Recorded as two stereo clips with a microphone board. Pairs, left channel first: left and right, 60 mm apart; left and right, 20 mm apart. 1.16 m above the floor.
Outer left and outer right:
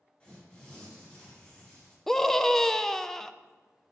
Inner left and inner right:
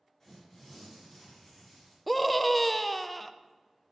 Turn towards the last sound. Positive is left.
turn(degrees=5)  # may be behind; listen again after turning